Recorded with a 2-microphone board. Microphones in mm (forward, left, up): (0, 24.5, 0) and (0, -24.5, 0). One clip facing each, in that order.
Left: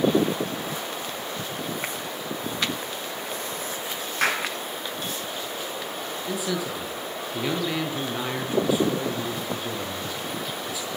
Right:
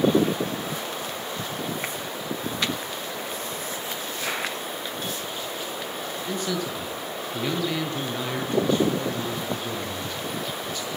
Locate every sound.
4.2 s a clap: 70° left (ahead or behind), 7 m
6.3 s a man speaking: 10° left (ahead or behind), 7.5 m